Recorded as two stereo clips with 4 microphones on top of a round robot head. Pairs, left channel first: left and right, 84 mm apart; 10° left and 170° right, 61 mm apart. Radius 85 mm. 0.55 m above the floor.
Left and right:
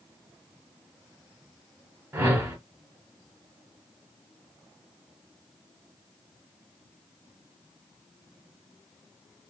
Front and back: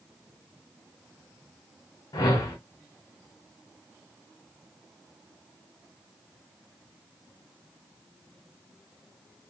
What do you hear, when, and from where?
2.1 s a whoosh: 30° right, 0.9 m